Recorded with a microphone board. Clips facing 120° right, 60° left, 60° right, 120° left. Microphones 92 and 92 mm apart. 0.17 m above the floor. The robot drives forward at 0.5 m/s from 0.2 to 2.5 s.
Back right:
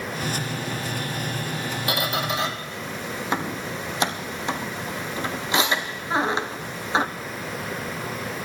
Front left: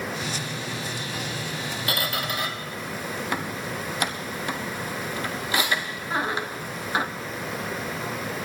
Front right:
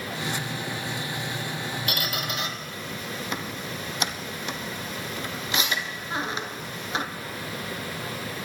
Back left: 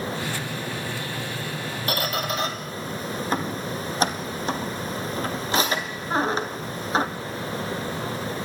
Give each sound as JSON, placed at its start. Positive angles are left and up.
{"t": 1.9, "sound": "a squeak", "azimuth_deg": 170, "distance_m": 1.2}